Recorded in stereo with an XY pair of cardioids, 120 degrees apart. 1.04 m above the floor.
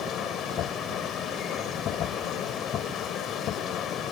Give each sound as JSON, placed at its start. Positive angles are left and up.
{"t": 0.0, "sound": "a machine running", "azimuth_deg": 65}